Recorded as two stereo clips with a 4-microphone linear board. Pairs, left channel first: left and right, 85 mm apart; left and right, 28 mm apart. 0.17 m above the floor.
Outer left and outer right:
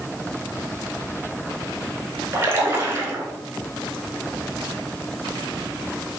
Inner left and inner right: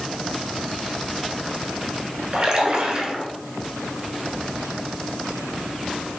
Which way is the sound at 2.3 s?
30° right (ahead or behind).